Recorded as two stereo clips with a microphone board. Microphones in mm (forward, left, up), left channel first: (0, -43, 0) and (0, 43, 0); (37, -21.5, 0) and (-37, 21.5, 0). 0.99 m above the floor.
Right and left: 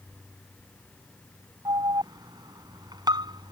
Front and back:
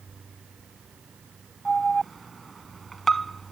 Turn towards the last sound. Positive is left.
turn(degrees=60)